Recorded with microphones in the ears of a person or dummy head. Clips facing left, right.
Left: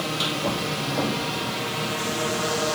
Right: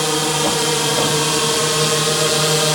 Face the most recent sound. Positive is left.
turn(degrees=-60)  # may be behind; listen again after turning